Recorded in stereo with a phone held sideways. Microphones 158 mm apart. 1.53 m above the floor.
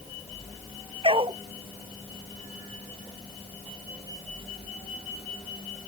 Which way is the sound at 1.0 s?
35° right (ahead or behind).